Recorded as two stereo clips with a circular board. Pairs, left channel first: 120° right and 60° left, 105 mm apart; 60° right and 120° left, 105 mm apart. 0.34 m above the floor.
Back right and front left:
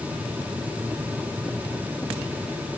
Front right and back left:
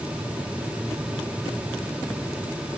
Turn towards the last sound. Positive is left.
No sound to turn to.